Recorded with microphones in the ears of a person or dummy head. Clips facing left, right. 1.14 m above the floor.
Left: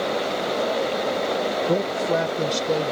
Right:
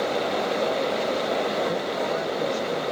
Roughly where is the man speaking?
Left.